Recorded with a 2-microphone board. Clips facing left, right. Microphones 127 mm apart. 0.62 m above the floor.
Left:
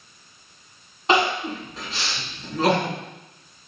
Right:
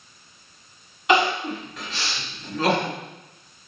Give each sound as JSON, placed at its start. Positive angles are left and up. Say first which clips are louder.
{"t": 1.1, "sound": "crying", "louder": "right 1 dB", "side_deg": 30, "distance_m": 1.9}